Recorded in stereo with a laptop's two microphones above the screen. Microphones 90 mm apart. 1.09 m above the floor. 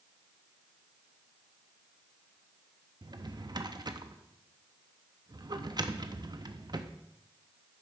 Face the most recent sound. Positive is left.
turn(degrees=-50)  # may be behind; listen again after turning